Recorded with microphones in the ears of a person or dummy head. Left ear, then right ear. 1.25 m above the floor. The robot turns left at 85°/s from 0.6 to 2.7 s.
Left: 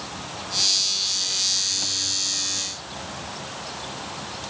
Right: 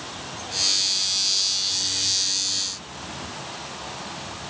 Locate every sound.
Only background noise.